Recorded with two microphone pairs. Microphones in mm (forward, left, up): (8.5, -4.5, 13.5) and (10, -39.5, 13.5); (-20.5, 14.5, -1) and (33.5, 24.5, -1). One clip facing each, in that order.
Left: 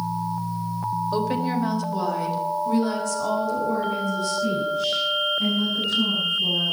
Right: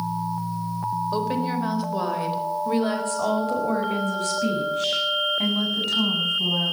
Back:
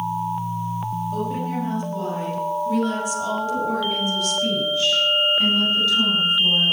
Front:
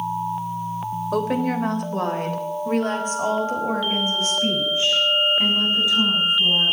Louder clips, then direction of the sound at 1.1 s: Left 2 dB, front 7 dB; straight ahead.